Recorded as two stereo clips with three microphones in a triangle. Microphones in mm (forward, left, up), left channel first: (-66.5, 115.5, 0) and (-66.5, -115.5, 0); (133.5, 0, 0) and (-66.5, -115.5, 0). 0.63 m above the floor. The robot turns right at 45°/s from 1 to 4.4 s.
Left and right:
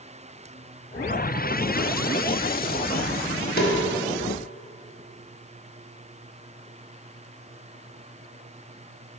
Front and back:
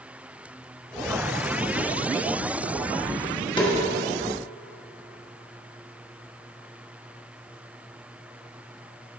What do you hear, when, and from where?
3.6 s a snare drum: 85° left, 1.3 m; by 3.8 s 95° left, 1.3 m